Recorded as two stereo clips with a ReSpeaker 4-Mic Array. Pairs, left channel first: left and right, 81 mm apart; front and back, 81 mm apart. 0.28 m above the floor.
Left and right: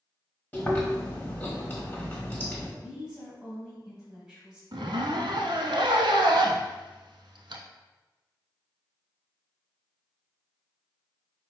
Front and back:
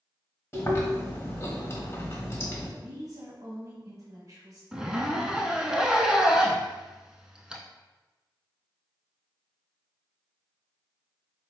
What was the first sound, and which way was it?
Chewing, 30° left.